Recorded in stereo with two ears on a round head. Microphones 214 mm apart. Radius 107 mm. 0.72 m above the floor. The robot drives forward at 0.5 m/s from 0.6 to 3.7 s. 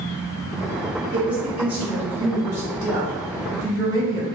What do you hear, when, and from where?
1.1 s a woman speaking: 5° right (ahead or behind), 1.9 m; by 4.2 s 15° right (ahead or behind), 0.9 m